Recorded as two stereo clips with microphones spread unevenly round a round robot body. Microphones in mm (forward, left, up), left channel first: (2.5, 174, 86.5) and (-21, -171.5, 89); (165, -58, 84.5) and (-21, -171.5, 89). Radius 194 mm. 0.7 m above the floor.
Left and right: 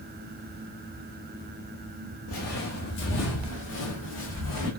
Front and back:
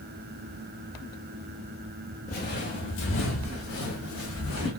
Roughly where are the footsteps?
Ahead left.